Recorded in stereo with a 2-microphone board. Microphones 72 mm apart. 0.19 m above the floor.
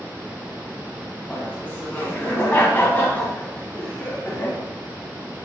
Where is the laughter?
25° left (ahead or behind), 1.1 m.